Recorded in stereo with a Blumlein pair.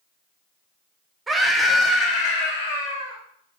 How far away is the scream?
About 0.6 m.